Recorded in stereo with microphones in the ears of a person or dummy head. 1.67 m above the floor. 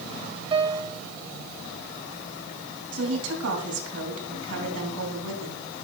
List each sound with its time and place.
0.5 s a piano: 25° right (ahead or behind), 0.5 m
2.9 s a woman speaking: 85° right, 2.5 m